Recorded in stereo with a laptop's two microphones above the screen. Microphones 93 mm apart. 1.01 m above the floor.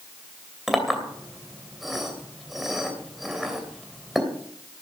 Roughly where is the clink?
Centre.